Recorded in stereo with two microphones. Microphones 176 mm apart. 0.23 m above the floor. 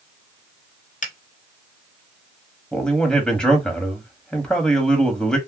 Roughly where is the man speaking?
Centre.